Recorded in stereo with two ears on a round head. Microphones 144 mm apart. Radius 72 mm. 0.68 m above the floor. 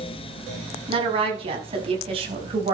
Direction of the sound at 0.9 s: 35° right (ahead or behind).